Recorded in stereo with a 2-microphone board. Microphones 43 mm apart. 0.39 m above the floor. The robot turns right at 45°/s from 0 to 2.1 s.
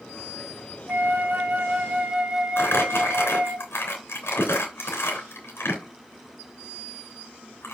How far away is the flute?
About 1.4 m.